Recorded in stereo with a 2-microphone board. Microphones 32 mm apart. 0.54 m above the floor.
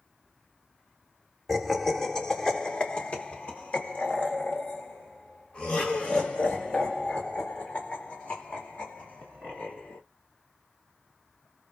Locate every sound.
1.5 s laughter: 5° left (ahead or behind), 1.2 m; by 10.0 s 55° left (ahead or behind), 4 m